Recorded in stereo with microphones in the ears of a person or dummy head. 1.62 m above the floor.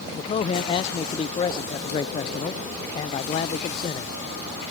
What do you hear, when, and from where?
0.1 s a man speaking: 25° left (ahead or behind)